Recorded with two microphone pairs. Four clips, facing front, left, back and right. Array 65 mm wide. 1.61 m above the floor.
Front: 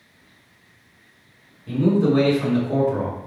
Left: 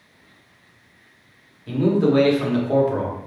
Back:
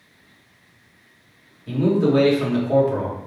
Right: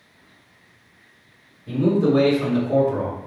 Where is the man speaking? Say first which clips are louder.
Even, even; 100° left, 1.0 m.